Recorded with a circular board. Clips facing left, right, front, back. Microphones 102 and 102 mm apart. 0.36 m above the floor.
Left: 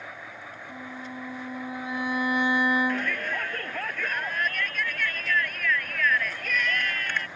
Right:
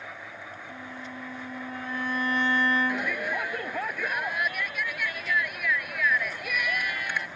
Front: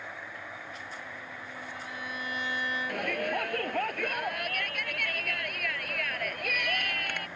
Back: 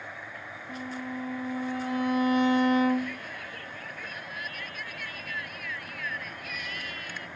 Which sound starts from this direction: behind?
A violin, at 0.7 s.